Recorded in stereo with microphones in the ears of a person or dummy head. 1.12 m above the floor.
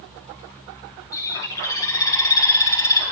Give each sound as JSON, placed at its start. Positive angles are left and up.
{"t": 1.1, "sound": "a bird", "side_deg": 10, "distance_m": 3.5}